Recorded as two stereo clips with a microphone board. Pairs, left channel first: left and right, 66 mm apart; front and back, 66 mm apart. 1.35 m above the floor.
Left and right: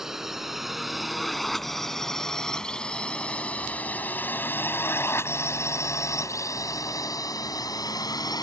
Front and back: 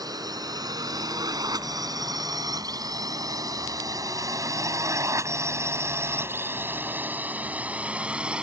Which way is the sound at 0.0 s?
175° right.